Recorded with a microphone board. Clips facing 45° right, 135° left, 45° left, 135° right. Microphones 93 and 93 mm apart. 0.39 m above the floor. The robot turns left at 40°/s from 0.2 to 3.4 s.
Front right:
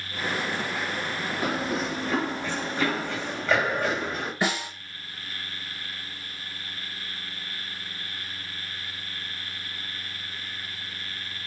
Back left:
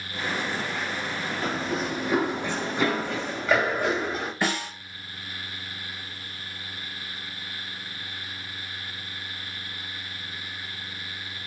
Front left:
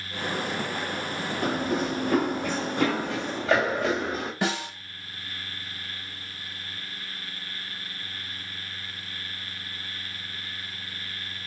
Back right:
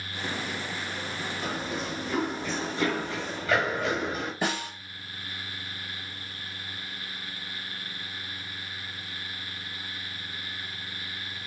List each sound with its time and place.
1.4 s running footsteps: 35° left, 0.6 m; by 4.3 s 60° left, 1.8 m
4.4 s a snare drum: 30° left, 2 m